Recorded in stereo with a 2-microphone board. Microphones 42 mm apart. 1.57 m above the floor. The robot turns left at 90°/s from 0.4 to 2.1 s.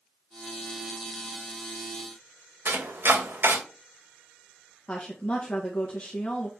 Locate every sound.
2.6 s chopping: 55° right (ahead or behind), 2 m
4.9 s a woman speaking: 30° left (ahead or behind), 1.8 m